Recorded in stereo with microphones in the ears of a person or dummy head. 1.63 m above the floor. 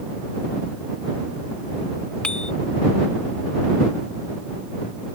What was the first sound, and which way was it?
A bicycle bell, 5° left (ahead or behind).